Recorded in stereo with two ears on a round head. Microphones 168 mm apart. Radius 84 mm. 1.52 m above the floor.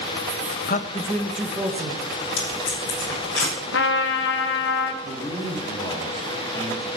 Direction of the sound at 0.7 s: 45° left (ahead or behind).